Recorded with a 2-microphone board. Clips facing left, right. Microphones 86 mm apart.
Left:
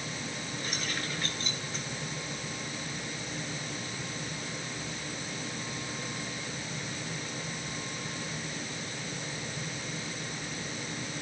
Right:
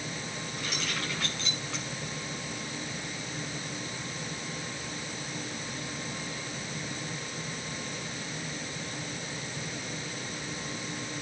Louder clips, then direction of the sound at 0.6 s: Right 2 dB; 75° right (ahead or behind).